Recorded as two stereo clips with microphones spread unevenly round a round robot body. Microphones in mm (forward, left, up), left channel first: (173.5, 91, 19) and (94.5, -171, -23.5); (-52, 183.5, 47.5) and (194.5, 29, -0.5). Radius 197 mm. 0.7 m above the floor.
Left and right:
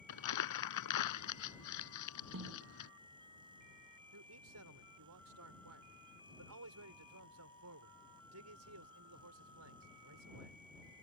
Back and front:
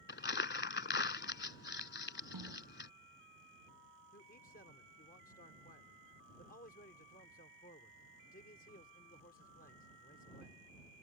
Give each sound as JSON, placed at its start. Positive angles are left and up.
{"t": 0.1, "sound": "crumpling", "azimuth_deg": 100}
{"t": 2.3, "sound": "a snare drum", "azimuth_deg": -65}
{"t": 4.1, "sound": "a man speaking", "azimuth_deg": -140}